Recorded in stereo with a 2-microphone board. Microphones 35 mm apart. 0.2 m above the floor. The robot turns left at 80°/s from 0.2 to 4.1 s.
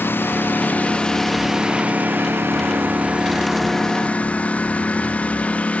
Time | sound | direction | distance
0.0 | a lawn mower | 90° left | ?